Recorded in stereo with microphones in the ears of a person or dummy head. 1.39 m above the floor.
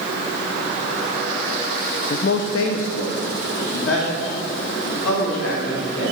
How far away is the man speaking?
About 0.5 m.